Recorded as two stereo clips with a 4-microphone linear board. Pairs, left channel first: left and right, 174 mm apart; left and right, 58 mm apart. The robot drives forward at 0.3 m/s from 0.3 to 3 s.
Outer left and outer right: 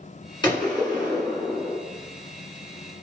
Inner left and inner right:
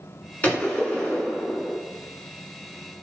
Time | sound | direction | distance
0.4 | a gunshot | 25° left (ahead or behind) | 1.5 m